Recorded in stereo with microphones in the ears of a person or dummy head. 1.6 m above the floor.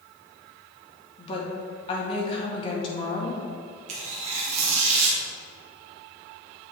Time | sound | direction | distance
1.2 | a woman speaking | 30° left (ahead or behind) | 1.8 m
3.9 | tearing paper | 40° right (ahead or behind) | 1.6 m